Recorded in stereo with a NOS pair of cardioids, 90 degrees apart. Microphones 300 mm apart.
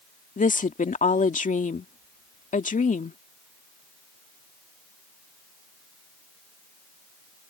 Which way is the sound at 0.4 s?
25° left.